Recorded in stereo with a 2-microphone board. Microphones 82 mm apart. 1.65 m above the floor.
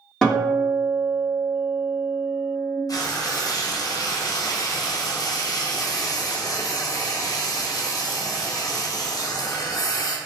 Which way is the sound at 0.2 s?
10° left (ahead or behind).